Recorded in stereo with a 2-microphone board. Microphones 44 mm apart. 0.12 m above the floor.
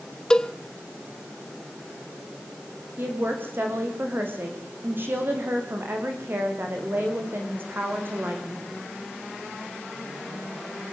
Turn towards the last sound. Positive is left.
turn(degrees=-50)  # may be behind; listen again after turning